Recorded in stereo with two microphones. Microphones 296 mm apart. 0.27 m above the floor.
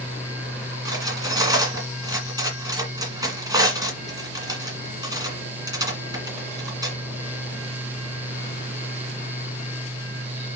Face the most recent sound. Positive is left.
turn(degrees=-10)  # may be behind; listen again after turning